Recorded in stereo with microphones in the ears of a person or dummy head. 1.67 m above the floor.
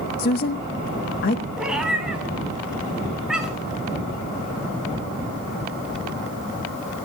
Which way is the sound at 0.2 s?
45° left (ahead or behind).